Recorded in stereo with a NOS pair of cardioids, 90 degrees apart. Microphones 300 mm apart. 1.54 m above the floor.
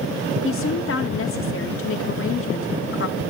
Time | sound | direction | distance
0.4 | a woman speaking | 45° left | 4 m